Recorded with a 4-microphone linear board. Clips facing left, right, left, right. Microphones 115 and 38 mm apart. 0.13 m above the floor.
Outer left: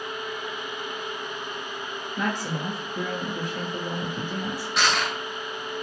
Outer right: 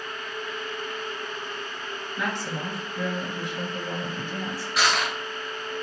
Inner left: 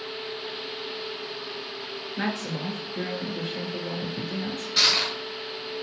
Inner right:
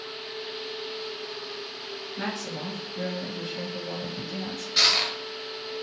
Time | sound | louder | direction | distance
2.2 | a woman speaking | outer left 2 dB, inner left 4 dB | 45° left (ahead or behind) | 1.7 m
4.8 | crushing | even, even | centre (ahead or behind) | 1.5 m